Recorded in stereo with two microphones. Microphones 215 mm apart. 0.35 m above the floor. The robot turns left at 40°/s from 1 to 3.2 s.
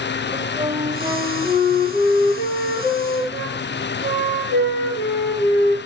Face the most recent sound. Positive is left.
turn(degrees=100)